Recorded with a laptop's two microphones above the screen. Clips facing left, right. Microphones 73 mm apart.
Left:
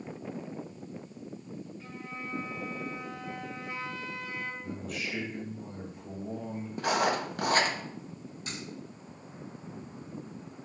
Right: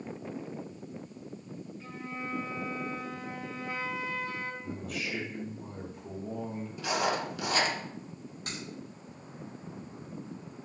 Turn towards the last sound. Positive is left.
turn(degrees=-45)  # may be behind; listen again after turning